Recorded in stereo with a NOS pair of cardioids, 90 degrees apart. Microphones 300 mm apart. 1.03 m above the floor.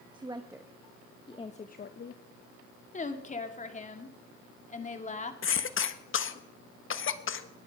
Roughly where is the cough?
Ahead left.